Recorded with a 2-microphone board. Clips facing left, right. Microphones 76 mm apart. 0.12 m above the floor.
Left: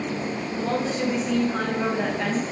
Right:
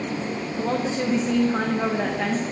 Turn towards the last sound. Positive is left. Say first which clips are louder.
# right 1 dB
turn(degrees=-25)  # may be behind; listen again after turning